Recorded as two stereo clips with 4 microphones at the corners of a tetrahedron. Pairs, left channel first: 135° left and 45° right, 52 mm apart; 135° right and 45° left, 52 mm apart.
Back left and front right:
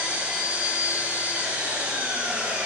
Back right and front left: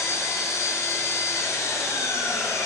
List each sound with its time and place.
0.0 s an engine running: 110° right, 4 m